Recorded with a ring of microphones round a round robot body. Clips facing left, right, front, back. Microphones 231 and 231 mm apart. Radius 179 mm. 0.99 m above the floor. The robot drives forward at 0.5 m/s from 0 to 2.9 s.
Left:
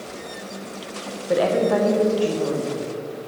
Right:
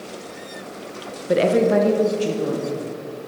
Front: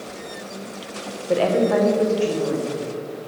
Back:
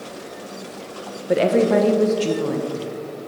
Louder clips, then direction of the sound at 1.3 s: Right 3 dB, back 2 dB; 120° right.